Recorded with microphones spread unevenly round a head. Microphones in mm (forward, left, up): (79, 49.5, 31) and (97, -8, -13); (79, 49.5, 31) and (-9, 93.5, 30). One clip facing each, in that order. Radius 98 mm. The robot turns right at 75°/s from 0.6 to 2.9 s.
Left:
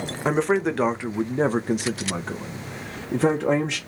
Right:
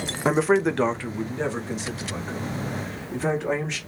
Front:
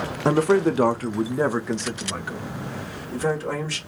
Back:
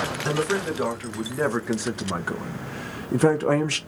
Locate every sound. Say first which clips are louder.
0.2 s a man speaking: right 1 dB, front 8 dB; 15° right, 0.6 m; by 3.8 s 155° left, 0.6 m